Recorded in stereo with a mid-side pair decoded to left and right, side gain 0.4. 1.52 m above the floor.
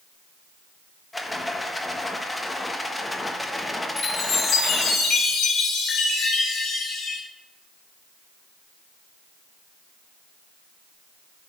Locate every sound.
1.1 s a rattle: 15° left, 1.4 m
4.0 s a chime: 65° left, 4 m